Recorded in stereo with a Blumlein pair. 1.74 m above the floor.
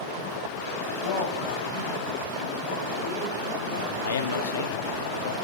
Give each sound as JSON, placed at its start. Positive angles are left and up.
{"t": 1.0, "sound": "a man speaking", "azimuth_deg": 50, "distance_m": 1.0}
{"t": 4.0, "sound": "a man speaking", "azimuth_deg": 65, "distance_m": 0.5}